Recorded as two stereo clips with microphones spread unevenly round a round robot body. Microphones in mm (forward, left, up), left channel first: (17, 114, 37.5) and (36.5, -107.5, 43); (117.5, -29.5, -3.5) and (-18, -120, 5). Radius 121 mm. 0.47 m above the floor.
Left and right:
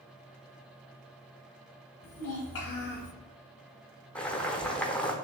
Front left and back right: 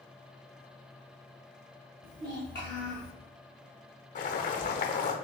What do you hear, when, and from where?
2.0 s a child speaking: 110° left, 1.3 m; by 3.1 s 35° left, 0.7 m
4.2 s boiling: 10° left, 0.8 m